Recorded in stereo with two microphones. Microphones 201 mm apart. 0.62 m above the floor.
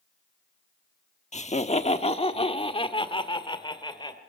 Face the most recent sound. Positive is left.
turn(degrees=20)  # may be behind; listen again after turning